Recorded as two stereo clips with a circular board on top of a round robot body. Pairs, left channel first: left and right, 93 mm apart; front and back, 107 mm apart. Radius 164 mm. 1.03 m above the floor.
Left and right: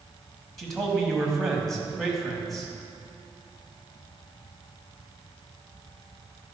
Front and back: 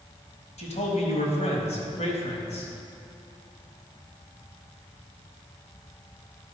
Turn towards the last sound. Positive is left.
turn(degrees=0)